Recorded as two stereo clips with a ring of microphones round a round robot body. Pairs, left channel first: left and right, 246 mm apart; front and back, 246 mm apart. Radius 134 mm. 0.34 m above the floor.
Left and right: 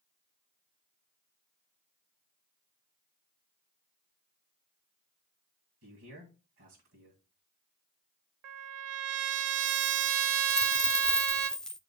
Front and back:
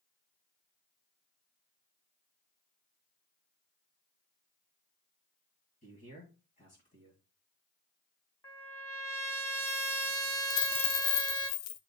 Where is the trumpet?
80° right, 0.7 m.